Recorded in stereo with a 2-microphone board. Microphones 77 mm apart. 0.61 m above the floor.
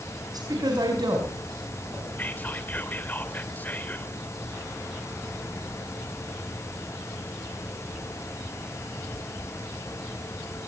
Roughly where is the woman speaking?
Right.